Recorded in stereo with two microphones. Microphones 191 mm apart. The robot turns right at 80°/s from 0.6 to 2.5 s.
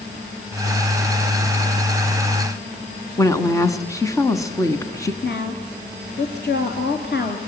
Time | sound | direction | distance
3.2 | a woman speaking | 15° left (ahead or behind) | 1.3 m
5.2 | a woman speaking | 60° left (ahead or behind) | 3 m